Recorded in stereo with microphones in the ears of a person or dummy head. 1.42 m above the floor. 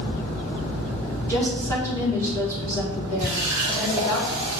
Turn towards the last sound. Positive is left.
turn(degrees=-10)  # may be behind; listen again after turning